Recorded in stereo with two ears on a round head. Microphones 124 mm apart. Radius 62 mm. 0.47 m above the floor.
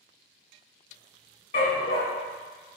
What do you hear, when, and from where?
1.5 s a dog barking: 65° left (ahead or behind), 1.0 m